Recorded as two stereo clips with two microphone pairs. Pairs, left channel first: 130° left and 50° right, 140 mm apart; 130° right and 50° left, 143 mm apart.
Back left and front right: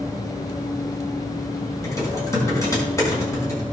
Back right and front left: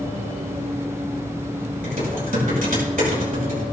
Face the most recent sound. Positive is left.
turn(degrees=60)